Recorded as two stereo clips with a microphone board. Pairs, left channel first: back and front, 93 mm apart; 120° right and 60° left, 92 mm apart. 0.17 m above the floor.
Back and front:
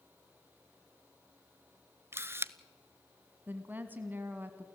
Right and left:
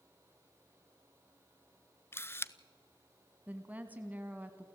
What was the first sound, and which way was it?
A camera shutter, 60° right.